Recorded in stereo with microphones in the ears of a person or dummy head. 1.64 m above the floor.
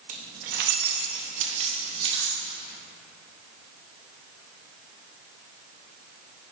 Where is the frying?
No frying in this recording.